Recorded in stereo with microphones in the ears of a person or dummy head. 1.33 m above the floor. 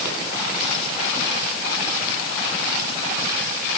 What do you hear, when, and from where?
Only background noise.